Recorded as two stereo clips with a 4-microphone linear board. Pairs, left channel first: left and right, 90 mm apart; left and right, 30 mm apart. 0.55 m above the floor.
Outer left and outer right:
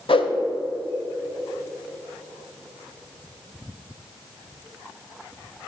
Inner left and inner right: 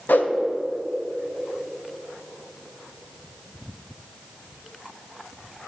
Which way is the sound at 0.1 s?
80° left.